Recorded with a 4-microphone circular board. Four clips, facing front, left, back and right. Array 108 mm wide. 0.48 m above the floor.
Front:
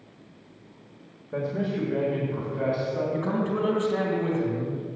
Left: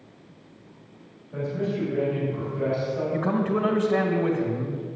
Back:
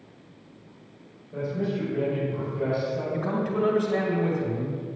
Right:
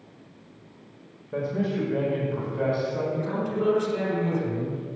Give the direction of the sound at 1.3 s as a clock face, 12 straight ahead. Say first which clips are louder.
Right 1 dB, front 1 dB; 1 o'clock.